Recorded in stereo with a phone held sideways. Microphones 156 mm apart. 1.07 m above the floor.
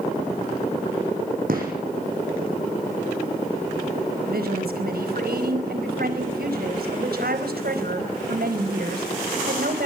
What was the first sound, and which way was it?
A gunshot, 65° right (ahead or behind).